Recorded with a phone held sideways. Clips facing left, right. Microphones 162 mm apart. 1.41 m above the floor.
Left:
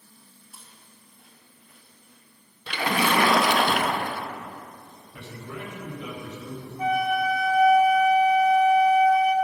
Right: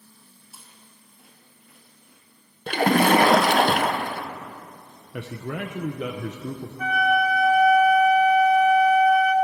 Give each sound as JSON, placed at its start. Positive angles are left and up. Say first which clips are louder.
{"t": 0.5, "sound": "chewing", "louder": "right 1 dB", "side_deg": -5, "distance_m": 2.5}
{"t": 2.7, "sound": "a splash", "louder": "right 7 dB", "side_deg": -50, "distance_m": 0.6}
{"t": 5.1, "sound": "a man speaking", "louder": "right 7 dB", "side_deg": -75, "distance_m": 0.6}
{"t": 6.8, "sound": "a flute", "louder": "right 1 dB", "side_deg": 30, "distance_m": 1.0}